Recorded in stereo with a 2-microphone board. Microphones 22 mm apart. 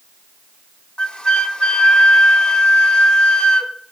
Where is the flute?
50° left (ahead or behind), 0.6 m.